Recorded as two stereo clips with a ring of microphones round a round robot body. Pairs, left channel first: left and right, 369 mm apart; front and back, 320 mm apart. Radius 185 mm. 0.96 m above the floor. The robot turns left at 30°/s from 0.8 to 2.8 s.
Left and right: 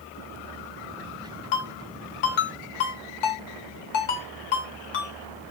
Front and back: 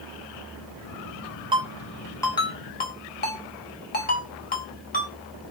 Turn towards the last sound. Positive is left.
turn(degrees=65)